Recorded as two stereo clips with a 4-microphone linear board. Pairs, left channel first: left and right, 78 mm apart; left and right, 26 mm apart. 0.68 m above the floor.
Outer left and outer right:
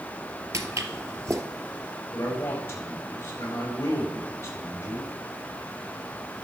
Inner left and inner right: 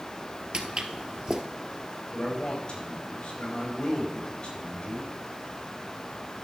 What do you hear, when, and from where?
0.5 s footsteps: 40° right (ahead or behind), 1.0 m
2.1 s a man speaking: 40° left (ahead or behind), 3.5 m